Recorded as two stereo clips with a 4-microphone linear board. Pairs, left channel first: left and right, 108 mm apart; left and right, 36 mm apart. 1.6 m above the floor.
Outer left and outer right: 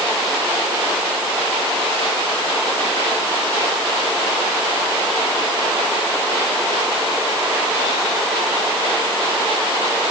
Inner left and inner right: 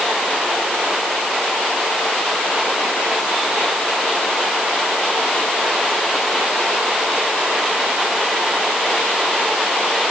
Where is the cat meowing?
No cat meowing in this recording.